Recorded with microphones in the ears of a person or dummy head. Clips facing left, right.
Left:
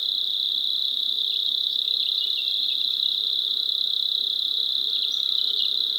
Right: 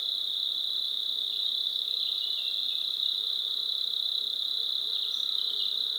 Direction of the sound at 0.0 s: 35° left (ahead or behind).